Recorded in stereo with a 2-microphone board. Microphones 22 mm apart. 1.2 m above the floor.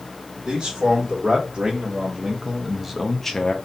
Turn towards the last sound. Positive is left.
turn(degrees=25)  # may be behind; listen again after turning